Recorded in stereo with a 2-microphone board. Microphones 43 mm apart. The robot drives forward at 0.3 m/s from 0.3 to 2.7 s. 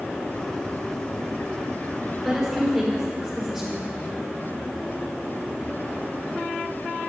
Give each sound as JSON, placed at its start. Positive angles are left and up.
{"t": 2.2, "sound": "a woman speaking", "side_deg": -5, "distance_m": 5.0}